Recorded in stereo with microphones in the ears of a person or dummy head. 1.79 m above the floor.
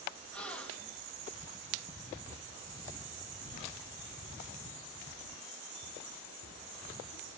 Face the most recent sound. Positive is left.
turn(degrees=50)  # may be behind; listen again after turning